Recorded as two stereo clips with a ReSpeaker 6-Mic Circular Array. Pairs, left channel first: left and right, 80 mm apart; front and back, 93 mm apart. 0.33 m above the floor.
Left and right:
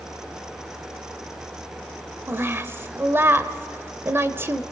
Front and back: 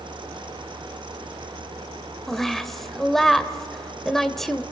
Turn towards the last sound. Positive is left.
turn(degrees=-85)